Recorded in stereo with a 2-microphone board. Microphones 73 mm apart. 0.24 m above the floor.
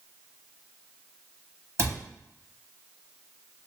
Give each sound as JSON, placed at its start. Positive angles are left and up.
{"t": 1.8, "sound": "a cupboard door", "side_deg": -40, "distance_m": 0.7}